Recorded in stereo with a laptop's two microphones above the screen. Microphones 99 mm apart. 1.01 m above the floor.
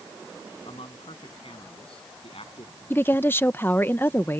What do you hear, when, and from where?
0.7 s a man speaking: 65° left (ahead or behind); by 2.8 s 70° left (ahead or behind)
2.9 s a woman speaking: 20° left (ahead or behind)